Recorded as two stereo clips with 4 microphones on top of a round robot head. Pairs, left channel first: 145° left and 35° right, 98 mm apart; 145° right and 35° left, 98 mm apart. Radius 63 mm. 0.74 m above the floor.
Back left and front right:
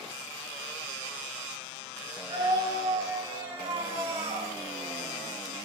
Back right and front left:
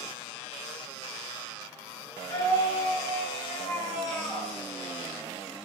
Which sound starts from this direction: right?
A scream, at 2.3 s.